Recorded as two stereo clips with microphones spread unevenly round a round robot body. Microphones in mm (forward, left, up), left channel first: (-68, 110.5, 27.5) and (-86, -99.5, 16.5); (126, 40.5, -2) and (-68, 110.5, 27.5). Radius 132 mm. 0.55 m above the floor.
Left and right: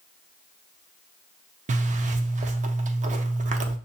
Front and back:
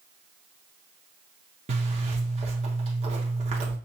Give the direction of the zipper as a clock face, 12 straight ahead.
4 o'clock.